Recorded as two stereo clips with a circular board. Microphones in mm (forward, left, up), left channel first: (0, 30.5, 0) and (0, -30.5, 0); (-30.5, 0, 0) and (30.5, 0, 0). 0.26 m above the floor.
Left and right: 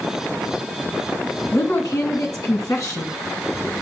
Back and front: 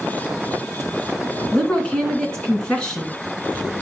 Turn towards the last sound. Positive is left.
turn(degrees=105)